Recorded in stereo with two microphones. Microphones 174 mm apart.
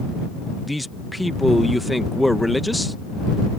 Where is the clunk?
No clunk in this recording.